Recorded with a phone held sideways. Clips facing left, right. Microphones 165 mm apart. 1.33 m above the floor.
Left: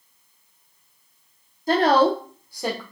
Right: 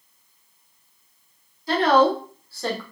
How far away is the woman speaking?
About 0.9 m.